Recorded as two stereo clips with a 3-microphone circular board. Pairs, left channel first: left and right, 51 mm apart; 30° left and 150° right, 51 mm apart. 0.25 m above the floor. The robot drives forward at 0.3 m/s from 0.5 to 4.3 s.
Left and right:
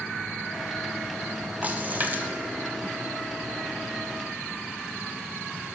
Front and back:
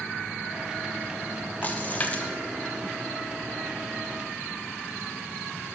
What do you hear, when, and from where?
1.6 s a splash: 30° right, 1.1 m; by 2.3 s 35° right, 0.9 m